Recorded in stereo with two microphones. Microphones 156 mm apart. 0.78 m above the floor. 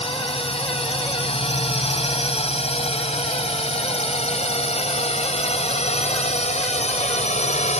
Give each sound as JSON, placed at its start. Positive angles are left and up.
{"t": 0.0, "sound": "a drone", "side_deg": 35}